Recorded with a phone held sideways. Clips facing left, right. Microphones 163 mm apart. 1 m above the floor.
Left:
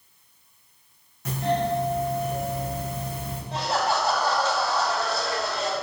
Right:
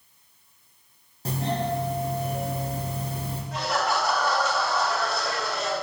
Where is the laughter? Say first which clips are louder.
Left 1 dB; 30° left (ahead or behind), 2.5 m.